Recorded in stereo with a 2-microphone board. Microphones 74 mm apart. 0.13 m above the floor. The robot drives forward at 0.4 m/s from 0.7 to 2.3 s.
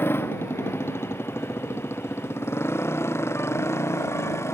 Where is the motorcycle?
30° left (ahead or behind); by 4.5 s 35° left (ahead or behind).